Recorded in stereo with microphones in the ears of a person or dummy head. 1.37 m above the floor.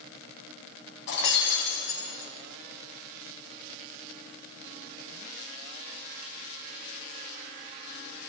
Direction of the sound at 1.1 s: 60° left (ahead or behind).